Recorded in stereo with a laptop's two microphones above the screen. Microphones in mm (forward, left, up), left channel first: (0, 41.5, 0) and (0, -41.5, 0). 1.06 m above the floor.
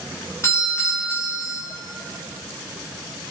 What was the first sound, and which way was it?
A doorbell, 30° left (ahead or behind).